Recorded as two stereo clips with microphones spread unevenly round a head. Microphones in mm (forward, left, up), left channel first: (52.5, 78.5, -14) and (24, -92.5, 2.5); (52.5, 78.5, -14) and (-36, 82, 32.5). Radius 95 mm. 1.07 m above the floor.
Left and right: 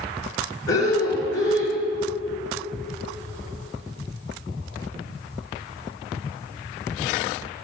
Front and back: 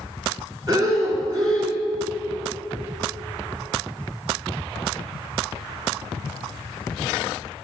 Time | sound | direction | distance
0.7 | breathing | 155° left | 2.5 m